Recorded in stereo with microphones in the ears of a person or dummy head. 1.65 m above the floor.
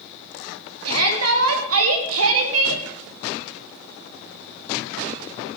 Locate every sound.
0.8 s a shout: 85° right, 3.5 m; by 2.8 s 80° right, 2.5 m